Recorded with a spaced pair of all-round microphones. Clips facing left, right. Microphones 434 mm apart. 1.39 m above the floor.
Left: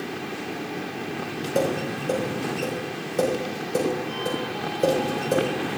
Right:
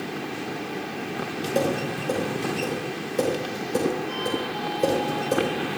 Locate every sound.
1.6 s tapping: 5° right (ahead or behind), 5.5 m